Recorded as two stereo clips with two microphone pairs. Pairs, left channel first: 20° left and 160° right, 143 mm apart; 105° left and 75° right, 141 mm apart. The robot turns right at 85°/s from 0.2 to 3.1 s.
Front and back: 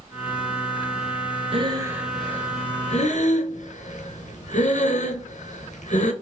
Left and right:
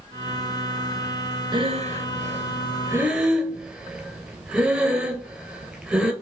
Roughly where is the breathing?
Behind right.